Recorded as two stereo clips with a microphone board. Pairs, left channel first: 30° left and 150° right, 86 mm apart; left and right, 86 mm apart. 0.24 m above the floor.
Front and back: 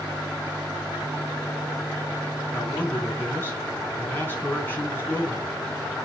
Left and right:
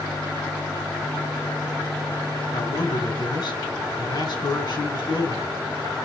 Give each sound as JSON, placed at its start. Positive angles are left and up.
{"t": 2.5, "sound": "a man speaking", "azimuth_deg": 90, "distance_m": 3.0}